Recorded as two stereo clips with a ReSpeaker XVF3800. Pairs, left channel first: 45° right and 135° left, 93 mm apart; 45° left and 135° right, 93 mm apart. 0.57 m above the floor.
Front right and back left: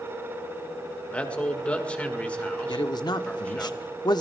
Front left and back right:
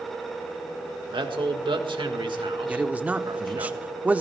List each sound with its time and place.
1.1 s a man speaking: 120° right, 1.6 m
2.7 s a man speaking: 65° right, 1.0 m